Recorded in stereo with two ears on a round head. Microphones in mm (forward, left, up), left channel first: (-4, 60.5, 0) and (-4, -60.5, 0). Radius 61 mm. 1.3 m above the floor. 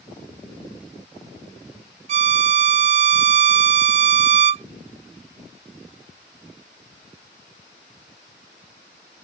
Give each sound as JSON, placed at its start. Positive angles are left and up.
{"t": 2.1, "sound": "a violin", "side_deg": -50}